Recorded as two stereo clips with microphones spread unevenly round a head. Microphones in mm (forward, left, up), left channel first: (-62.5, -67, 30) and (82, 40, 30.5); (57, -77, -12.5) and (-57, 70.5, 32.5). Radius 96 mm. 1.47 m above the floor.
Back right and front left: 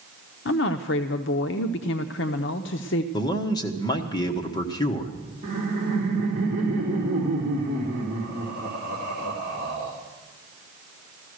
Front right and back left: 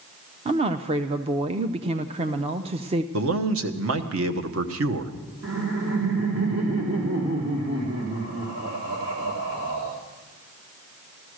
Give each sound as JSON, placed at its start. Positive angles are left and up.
{"t": 0.5, "sound": "a woman speaking", "azimuth_deg": -175, "distance_m": 0.5}
{"t": 3.1, "sound": "a man speaking", "azimuth_deg": 145, "distance_m": 1.2}
{"t": 5.4, "sound": "laughter", "azimuth_deg": 95, "distance_m": 1.8}